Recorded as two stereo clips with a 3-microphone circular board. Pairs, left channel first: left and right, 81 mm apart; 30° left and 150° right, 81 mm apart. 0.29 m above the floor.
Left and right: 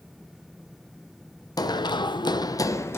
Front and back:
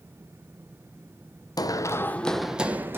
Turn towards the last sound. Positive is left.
turn(degrees=150)